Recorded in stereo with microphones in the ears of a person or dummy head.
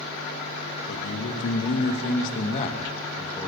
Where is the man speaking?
80° left, 3 m; by 3.5 s 10° left (ahead or behind), 2 m.